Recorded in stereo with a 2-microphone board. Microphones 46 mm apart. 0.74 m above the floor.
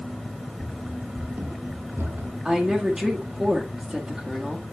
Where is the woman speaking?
15° right (ahead or behind), 1.3 m.